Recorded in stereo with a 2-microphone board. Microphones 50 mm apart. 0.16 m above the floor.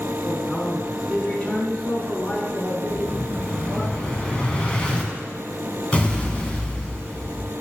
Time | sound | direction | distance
0.2 | a man speaking | 25° left (ahead or behind) | 1.8 m
2.9 | an explosion | 25° left (ahead or behind) | 1.5 m